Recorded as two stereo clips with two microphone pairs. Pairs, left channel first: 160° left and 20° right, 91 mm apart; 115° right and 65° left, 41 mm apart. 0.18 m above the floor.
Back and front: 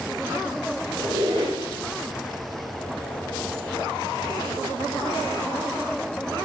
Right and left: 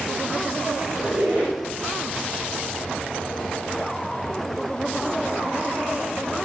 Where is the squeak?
20° left, 2.5 m.